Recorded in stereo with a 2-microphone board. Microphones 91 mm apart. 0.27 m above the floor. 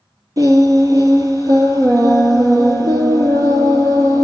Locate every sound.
0.4 s singing: 40° right (ahead or behind), 1.2 m